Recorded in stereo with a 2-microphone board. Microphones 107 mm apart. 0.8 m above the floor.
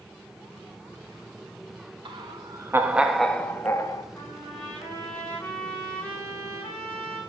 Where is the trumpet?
15° left (ahead or behind), 9 m.